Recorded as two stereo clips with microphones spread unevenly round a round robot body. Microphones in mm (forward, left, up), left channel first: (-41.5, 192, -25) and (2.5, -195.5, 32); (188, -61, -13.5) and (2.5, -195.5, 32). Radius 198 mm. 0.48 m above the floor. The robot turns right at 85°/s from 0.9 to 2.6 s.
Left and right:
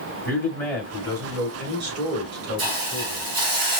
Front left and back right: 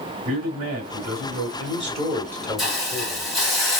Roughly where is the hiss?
Ahead right.